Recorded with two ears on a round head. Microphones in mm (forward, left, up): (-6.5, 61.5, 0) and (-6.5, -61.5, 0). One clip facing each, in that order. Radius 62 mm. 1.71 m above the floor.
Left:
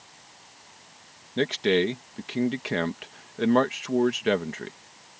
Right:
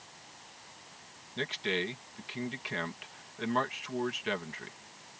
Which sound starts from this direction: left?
A man speaking, at 1.4 s.